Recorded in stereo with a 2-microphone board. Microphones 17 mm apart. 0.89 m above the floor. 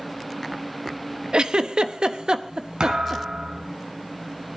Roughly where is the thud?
Right.